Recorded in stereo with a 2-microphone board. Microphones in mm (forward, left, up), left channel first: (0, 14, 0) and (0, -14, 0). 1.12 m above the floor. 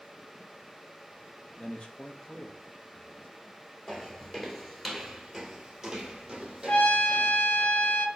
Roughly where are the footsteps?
Centre.